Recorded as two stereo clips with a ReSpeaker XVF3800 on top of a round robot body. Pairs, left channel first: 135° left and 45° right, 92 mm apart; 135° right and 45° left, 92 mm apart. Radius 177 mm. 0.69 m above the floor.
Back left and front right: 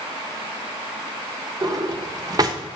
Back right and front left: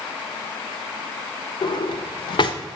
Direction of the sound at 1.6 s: 95° right.